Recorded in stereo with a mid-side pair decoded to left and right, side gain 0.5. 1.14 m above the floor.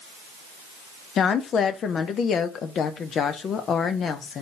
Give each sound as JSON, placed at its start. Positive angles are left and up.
{"t": 1.2, "sound": "a woman speaking", "azimuth_deg": 55, "distance_m": 0.6}